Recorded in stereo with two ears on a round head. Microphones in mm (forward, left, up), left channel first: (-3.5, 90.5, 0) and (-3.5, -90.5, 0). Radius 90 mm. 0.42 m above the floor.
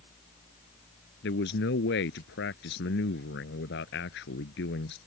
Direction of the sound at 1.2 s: 60° left (ahead or behind).